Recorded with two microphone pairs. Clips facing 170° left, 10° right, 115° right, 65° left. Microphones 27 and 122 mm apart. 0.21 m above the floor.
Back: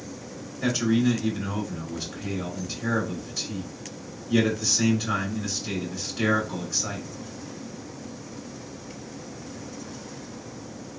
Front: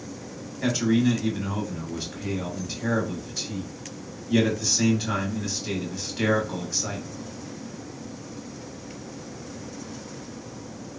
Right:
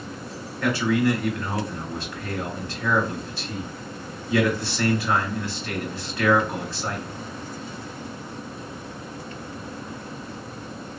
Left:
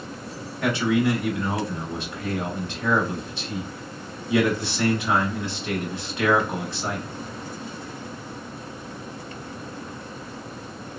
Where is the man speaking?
35° left, 1.0 m.